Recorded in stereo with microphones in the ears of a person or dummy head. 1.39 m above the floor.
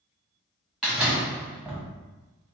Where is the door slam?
Centre (ahead or behind), 1.3 m.